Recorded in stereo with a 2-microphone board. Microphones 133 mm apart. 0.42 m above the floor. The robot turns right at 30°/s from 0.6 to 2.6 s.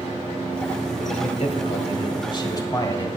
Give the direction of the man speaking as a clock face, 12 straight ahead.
9 o'clock.